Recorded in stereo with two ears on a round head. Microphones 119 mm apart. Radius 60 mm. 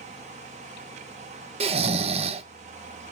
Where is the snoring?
50° right (ahead or behind), 0.6 m.